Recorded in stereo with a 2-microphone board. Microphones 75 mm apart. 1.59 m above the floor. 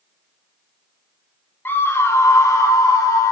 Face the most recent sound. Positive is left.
turn(degrees=45)  # may be behind; listen again after turning